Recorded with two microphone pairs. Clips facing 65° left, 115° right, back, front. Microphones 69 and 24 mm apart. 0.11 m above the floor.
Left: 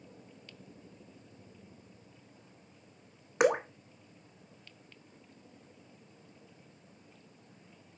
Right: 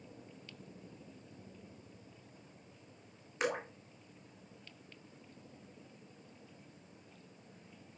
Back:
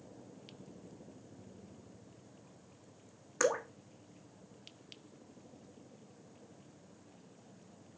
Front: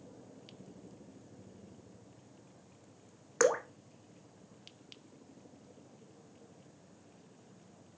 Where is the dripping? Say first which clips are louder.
Left 10 dB, front 3 dB; 60° left, 1.0 m.